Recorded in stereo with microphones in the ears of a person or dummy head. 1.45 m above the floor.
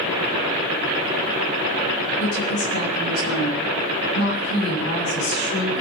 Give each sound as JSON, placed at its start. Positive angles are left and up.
{"t": 2.2, "sound": "a woman speaking", "side_deg": 55, "distance_m": 9.5}